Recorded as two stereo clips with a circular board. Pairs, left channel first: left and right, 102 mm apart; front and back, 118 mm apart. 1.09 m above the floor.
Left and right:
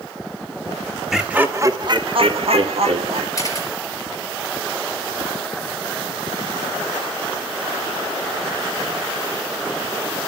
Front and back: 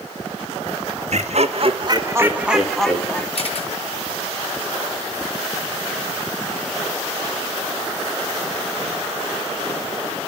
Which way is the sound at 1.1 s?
175° right.